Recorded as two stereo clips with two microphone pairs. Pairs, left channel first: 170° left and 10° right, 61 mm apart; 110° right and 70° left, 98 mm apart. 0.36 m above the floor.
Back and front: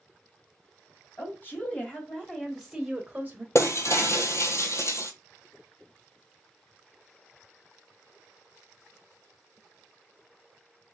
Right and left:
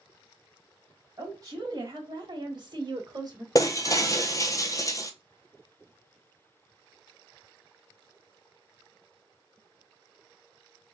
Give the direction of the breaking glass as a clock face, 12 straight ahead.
5 o'clock.